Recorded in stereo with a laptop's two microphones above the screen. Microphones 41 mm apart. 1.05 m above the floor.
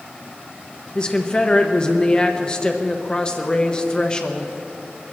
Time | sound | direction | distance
0.9 | a woman speaking | 25° left (ahead or behind) | 1.0 m